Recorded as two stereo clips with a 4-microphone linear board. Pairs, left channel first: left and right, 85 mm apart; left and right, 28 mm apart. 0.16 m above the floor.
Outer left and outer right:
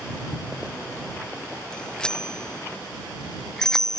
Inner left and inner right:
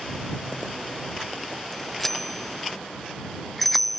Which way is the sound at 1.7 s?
10° left (ahead or behind).